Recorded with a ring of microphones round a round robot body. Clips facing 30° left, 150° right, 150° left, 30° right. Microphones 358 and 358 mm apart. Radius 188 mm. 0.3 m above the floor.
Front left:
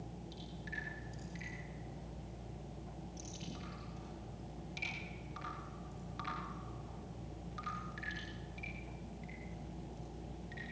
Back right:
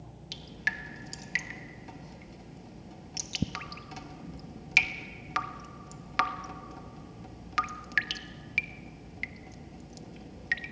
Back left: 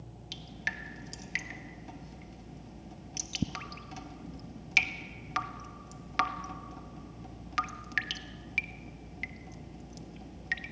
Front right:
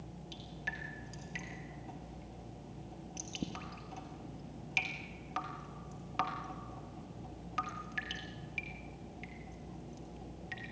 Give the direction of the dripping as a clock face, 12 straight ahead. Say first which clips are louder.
Back right 3 dB, back left 2 dB; 5 o'clock.